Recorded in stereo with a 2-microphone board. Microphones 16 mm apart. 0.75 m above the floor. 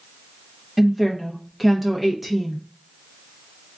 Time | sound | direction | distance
0.8 | a woman speaking | 10° right (ahead or behind) | 0.9 m